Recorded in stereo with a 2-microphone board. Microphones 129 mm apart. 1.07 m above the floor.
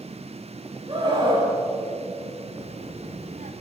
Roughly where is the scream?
Right.